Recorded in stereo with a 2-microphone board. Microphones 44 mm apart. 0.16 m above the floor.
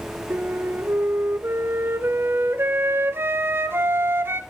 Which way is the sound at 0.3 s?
65° right (ahead or behind).